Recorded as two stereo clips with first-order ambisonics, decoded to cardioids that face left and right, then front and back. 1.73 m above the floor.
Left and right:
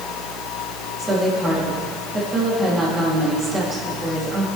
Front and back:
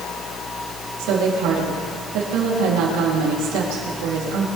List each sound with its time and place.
1.0 s a woman speaking: 165° right, 4 m